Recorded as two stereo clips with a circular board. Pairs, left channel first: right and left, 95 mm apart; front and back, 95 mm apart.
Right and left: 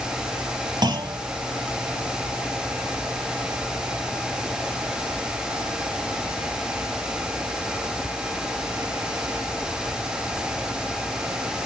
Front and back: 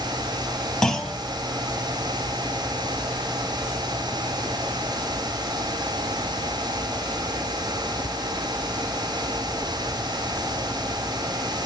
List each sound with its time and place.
0.8 s a clunk: 80° left, 1.0 m